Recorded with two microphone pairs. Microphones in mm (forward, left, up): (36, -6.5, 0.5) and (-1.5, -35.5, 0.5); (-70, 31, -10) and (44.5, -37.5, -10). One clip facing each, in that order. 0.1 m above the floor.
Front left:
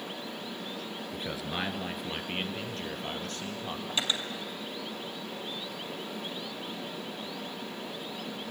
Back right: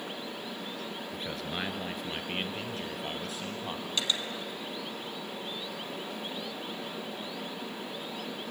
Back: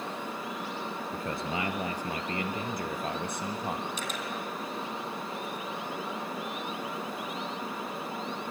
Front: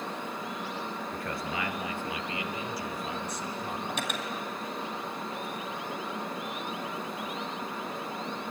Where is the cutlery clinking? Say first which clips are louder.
Front left 1 dB, front 2 dB; 35° right, 2 m.